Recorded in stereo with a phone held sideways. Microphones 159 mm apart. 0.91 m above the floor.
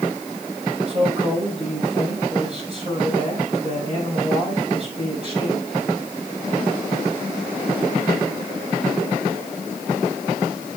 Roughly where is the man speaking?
Right.